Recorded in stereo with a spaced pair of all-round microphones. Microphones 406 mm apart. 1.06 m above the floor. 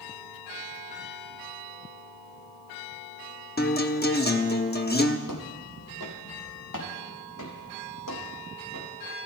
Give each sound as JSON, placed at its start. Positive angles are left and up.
{"t": 3.6, "sound": "a guitar", "side_deg": 25, "distance_m": 1.0}
{"t": 5.3, "sound": "footsteps", "side_deg": 50, "distance_m": 2.0}